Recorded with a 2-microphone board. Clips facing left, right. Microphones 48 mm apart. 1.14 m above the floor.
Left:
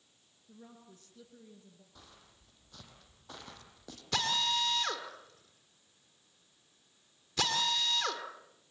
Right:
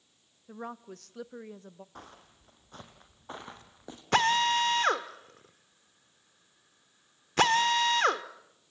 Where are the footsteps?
40° right (ahead or behind), 2.5 m; by 4.0 s 20° right (ahead or behind), 3 m.